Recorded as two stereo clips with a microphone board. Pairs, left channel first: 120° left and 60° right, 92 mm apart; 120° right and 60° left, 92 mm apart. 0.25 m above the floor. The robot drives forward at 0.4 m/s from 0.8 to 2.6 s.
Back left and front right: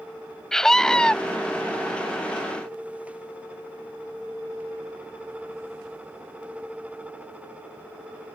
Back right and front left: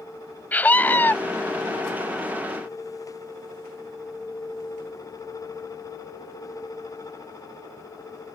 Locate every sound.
0.5 s a scream: 160° right; by 1.1 s 165° right